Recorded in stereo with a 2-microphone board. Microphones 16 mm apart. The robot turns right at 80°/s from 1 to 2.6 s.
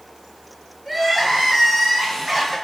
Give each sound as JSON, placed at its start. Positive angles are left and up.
{"t": 0.8, "sound": "crying", "side_deg": -15, "distance_m": 1.1}